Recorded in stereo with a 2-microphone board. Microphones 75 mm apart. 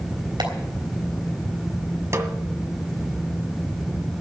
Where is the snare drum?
40° right (ahead or behind), 1.6 m.